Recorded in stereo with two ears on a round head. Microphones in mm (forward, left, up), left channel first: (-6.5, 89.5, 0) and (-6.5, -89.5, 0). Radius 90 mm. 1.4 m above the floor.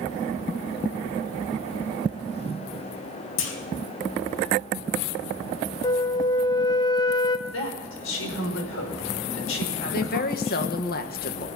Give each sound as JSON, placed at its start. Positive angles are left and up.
{"t": 3.4, "sound": "a clunk", "side_deg": 70, "distance_m": 2.0}
{"t": 5.8, "sound": "a flute", "side_deg": 20, "distance_m": 0.7}
{"t": 7.5, "sound": "a woman speaking", "side_deg": 75, "distance_m": 5.5}
{"t": 9.9, "sound": "a woman speaking", "side_deg": 50, "distance_m": 1.7}